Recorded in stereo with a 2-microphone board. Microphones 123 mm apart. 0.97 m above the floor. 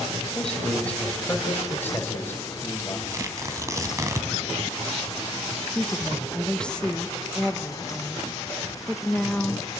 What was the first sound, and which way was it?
A man speaking, 5° left (ahead or behind).